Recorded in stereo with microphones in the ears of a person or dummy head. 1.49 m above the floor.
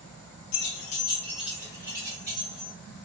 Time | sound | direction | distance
0.5 | keys jangling | 60° left (ahead or behind) | 0.7 m